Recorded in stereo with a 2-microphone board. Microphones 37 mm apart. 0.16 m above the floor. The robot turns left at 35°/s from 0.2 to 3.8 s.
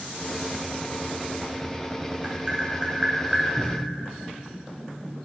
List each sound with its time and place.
2.2 s tapping: 40° right (ahead or behind), 0.7 m; by 3.5 s 15° right (ahead or behind), 0.7 m
3.6 s a cupboard door: 35° right (ahead or behind), 0.6 m; by 4.0 s 30° right (ahead or behind), 0.6 m